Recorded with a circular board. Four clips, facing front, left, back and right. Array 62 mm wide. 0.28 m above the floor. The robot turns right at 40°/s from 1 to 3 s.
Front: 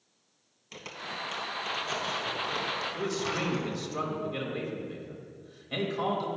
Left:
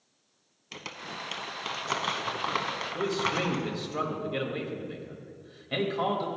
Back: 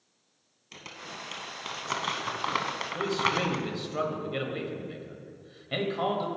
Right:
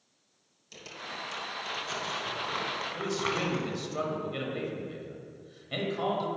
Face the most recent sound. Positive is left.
turn(degrees=145)